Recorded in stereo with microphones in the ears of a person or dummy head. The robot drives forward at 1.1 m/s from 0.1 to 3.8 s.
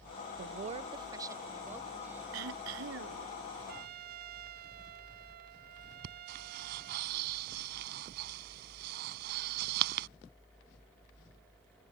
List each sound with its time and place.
0.4 s a woman speaking: 55° right (ahead or behind); by 2.2 s 10° right (ahead or behind)
2.3 s throat clearing: 80° right; by 3.3 s 75° right (ahead or behind)
3.7 s a trumpet: 60° right (ahead or behind); by 7.0 s 55° right (ahead or behind)
6.0 s breathing: 60° right (ahead or behind)